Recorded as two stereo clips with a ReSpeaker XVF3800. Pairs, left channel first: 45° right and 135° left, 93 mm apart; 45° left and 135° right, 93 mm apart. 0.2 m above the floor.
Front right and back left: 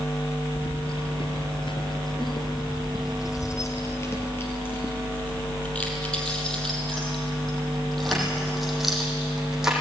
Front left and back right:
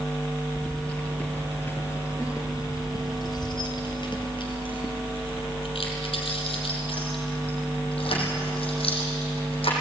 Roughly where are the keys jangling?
Ahead right.